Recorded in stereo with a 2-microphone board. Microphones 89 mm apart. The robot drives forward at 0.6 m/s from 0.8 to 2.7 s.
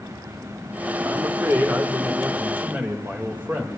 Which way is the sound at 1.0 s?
35° right (ahead or behind).